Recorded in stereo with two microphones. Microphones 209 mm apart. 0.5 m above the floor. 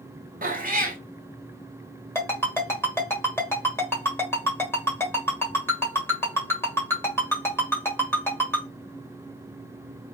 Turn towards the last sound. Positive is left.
turn(degrees=10)  # may be behind; listen again after turning